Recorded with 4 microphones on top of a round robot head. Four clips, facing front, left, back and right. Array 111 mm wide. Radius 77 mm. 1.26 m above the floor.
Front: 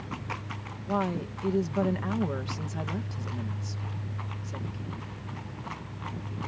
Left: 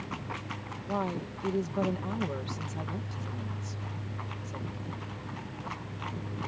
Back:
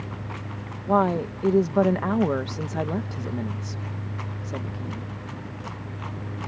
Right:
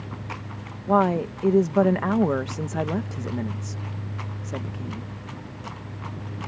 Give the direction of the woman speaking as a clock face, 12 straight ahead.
4 o'clock.